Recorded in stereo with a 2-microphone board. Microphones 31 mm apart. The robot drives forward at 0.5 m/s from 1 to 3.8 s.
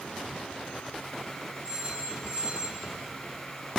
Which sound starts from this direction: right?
A phone ringing, at 1.6 s.